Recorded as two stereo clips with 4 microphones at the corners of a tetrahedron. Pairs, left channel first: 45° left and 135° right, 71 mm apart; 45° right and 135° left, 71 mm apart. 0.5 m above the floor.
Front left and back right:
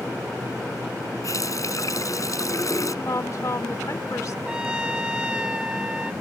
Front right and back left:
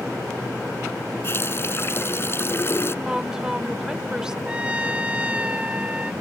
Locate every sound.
1.2 s a running tap: 10° left
3.0 s a woman speaking: 55° left
4.5 s a trumpet: 170° left